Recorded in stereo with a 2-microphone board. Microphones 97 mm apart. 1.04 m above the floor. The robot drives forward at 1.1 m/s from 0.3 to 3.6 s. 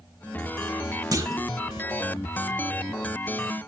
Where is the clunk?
40° right (ahead or behind), 1.2 m; by 1.5 s 30° right (ahead or behind), 1.5 m.